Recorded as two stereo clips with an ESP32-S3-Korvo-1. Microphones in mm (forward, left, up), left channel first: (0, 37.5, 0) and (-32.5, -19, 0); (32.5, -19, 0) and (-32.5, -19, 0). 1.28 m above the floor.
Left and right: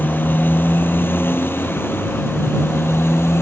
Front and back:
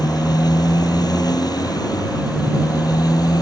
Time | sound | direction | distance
0.0 | a motorcycle | 5° left | ?